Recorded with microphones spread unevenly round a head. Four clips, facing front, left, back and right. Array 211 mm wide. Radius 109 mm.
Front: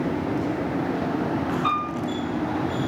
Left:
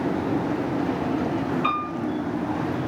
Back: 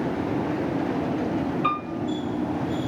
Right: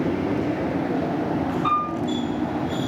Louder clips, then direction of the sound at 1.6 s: Right 3 dB, front 2 dB; 145° left.